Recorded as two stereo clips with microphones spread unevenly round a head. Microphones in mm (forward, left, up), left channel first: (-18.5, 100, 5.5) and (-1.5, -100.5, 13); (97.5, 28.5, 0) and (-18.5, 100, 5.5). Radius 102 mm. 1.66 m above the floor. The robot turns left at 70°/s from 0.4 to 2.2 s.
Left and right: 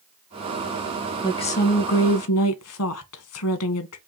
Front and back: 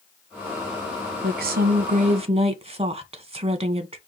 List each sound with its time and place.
1.2 s a woman speaking: 170° left, 1.2 m; by 4.0 s 105° left, 1.2 m